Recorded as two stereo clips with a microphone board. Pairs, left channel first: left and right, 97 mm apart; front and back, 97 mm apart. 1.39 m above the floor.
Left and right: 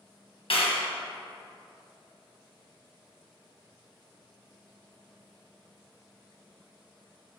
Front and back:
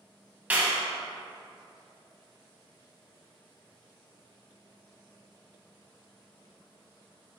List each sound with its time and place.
0.5 s a clap: 110° left, 1.7 m